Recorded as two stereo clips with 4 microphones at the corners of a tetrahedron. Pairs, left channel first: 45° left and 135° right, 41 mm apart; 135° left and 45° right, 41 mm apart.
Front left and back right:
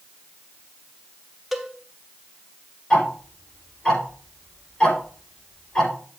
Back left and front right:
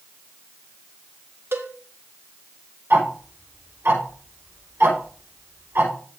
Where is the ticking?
25° right, 6 m.